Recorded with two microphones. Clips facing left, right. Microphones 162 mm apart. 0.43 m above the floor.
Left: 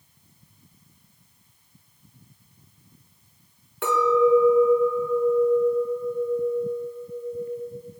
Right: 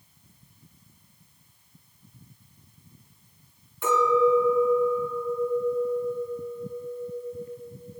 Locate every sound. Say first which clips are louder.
3.8 s a clink: left 2 dB; 75° left (ahead or behind), 3.5 m